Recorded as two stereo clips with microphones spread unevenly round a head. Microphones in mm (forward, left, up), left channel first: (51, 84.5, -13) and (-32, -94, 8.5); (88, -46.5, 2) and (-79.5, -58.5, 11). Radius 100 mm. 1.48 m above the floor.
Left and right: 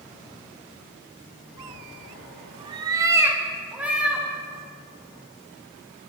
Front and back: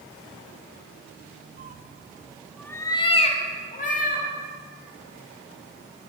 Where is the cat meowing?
170° right, 1.1 m; by 4.3 s 30° right, 2.0 m.